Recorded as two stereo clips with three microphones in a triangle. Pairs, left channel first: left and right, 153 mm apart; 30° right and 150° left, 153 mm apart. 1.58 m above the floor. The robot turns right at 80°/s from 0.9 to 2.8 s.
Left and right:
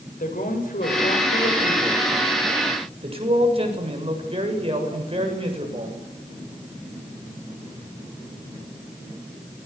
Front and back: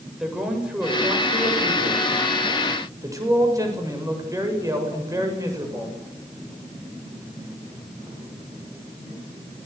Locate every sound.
0.2 s a man speaking: 65° left, 7.5 m; by 6.0 s 140° right, 7.5 m